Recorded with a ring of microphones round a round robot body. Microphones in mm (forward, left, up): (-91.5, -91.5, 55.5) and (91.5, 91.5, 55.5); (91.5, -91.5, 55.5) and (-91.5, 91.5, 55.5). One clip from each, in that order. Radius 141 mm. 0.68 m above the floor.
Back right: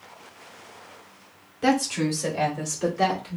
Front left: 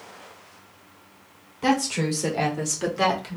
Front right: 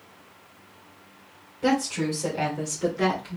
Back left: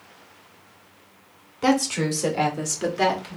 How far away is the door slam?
I don't hear a door slam.